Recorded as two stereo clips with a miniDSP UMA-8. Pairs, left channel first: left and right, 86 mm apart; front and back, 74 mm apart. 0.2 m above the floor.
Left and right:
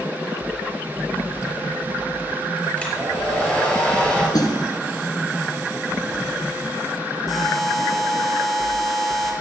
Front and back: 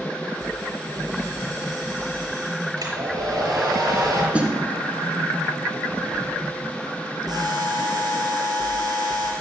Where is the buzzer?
Straight behind, 3.5 m.